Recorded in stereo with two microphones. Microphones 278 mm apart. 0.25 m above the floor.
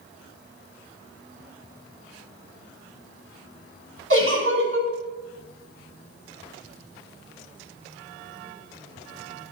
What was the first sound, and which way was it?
A giggle, 50° right (ahead or behind).